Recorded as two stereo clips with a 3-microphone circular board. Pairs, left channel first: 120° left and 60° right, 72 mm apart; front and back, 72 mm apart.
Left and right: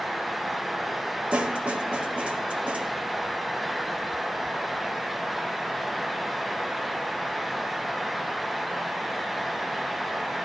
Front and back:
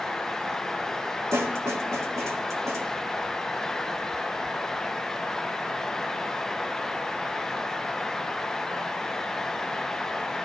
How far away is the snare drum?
About 1.6 m.